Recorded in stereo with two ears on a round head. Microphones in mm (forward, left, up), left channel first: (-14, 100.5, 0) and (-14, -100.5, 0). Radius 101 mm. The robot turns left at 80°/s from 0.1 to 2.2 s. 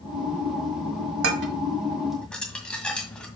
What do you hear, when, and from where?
1.2 s dishes clattering: 65° right (ahead or behind), 1.7 m; by 3.3 s 5° left (ahead or behind), 1.7 m